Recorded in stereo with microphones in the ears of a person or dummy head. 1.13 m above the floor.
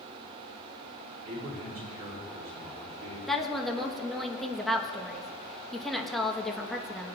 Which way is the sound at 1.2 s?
45° right (ahead or behind).